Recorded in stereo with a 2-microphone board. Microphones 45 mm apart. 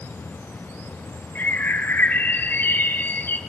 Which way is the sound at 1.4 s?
45° left (ahead or behind).